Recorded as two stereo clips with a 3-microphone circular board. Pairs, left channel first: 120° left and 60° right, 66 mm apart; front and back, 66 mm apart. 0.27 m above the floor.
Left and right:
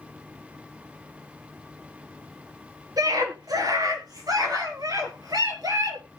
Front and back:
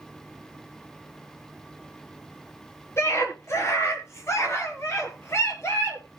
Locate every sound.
3.0 s a scream: 45° right, 3.5 m